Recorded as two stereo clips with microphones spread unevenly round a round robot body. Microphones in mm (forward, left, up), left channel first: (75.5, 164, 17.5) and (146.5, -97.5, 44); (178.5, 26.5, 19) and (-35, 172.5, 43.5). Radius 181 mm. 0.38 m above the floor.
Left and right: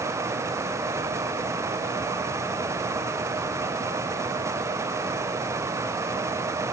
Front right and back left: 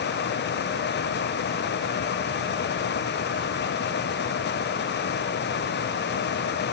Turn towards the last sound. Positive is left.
No sound to turn to.